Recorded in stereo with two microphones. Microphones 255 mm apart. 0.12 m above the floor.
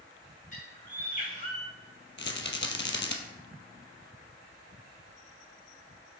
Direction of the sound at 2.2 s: 50° left (ahead or behind).